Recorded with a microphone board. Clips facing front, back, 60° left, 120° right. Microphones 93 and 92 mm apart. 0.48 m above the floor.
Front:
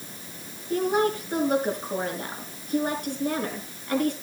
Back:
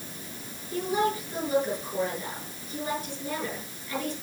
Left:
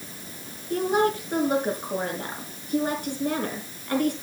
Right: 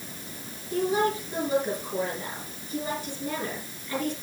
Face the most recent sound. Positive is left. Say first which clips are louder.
# front 4 dB, left 2 dB
turn(degrees=30)